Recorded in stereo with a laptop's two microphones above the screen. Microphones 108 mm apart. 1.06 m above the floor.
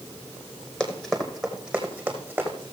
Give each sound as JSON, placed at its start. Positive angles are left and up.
{"t": 0.8, "sound": "running footsteps", "side_deg": 5, "distance_m": 1.8}